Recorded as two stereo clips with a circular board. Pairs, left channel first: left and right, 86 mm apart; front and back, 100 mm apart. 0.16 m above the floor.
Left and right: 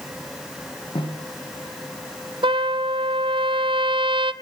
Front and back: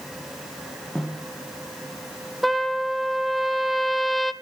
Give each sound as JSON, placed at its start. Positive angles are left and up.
{"t": 0.9, "sound": "a snare drum", "azimuth_deg": 90, "distance_m": 6.0}
{"t": 2.4, "sound": "a trumpet", "azimuth_deg": -90, "distance_m": 0.8}